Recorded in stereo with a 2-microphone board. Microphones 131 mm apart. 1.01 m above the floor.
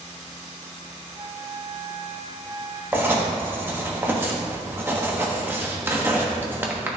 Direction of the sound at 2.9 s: 15° right (ahead or behind).